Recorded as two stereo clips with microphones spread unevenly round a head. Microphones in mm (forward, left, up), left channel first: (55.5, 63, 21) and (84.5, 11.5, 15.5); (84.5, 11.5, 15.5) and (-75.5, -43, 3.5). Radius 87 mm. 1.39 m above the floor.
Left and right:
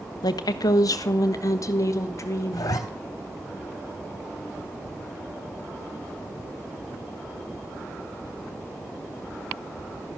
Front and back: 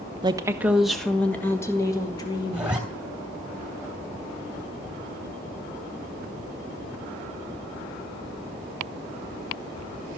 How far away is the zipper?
About 3 m.